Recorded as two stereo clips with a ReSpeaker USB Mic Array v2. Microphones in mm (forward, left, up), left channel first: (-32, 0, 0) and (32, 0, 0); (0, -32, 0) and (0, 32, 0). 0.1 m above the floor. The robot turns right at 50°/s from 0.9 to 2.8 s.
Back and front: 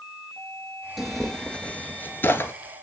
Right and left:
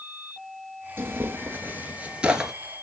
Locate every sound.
1.0 s tearing paper: 90° left, 1.2 m; by 2.5 s 170° left, 1.2 m